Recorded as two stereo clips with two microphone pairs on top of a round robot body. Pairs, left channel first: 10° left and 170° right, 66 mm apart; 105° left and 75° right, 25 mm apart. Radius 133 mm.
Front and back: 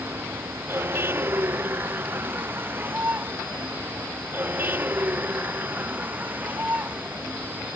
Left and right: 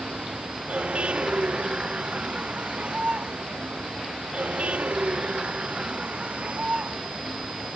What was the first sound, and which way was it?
A vehicle, 115° right.